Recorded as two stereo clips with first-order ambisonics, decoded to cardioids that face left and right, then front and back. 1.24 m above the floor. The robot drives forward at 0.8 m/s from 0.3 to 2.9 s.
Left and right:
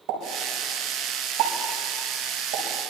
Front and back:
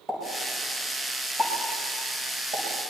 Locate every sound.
0.1 s a pop: 95° right, 9.5 m; by 2.9 s 105° right, 10 m